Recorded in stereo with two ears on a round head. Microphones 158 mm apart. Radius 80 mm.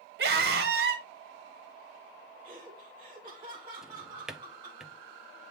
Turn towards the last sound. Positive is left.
turn(degrees=-5)  # may be behind; listen again after turning